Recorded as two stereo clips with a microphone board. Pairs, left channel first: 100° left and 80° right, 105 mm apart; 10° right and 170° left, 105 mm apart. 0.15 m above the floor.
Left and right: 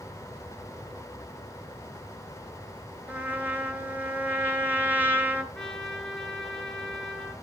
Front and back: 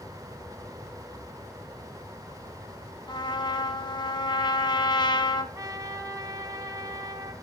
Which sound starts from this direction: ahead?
A trumpet, at 3.1 s.